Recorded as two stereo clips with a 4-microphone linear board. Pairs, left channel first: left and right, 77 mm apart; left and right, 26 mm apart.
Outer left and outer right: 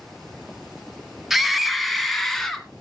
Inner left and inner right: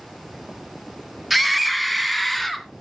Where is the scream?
5° right (ahead or behind), 1.9 m; by 2.7 s 5° left (ahead or behind), 2.5 m.